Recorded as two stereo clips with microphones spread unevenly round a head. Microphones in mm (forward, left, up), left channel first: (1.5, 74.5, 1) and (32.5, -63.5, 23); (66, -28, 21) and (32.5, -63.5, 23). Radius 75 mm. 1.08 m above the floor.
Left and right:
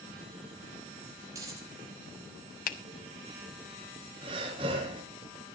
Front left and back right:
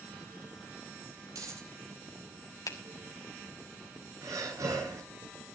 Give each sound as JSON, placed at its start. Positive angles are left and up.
{"t": 1.3, "sound": "a dropped coin", "azimuth_deg": -145, "distance_m": 5.5}
{"t": 2.7, "sound": "a finger snap", "azimuth_deg": 75, "distance_m": 1.4}
{"t": 4.2, "sound": "breathing", "azimuth_deg": -135, "distance_m": 4.0}